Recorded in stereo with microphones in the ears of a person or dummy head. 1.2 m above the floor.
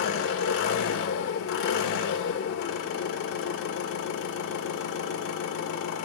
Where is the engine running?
65° left (ahead or behind), 1.8 m.